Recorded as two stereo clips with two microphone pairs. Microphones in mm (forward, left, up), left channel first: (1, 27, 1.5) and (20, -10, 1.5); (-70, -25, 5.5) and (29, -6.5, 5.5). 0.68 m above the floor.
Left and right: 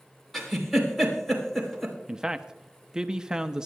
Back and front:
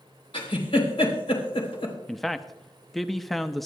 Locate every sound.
0.3 s a giggle: 155° right, 3.5 m
2.1 s a man speaking: 90° right, 0.7 m